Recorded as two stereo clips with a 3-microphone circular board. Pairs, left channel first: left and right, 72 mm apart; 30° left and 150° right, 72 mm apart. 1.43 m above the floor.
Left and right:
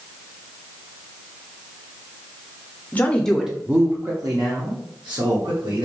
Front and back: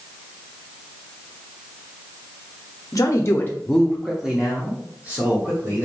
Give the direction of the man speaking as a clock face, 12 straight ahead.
11 o'clock.